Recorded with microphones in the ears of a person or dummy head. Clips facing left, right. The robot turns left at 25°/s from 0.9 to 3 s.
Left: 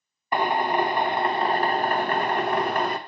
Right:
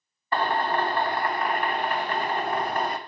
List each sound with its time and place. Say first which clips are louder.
0.3 s a drill: left 2 dB; 165° left, 0.6 m; by 3.0 s 115° left, 0.6 m